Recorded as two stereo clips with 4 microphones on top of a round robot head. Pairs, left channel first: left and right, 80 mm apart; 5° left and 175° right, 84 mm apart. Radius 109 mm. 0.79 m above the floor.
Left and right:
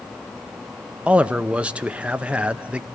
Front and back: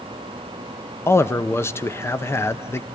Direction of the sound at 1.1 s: 25° right.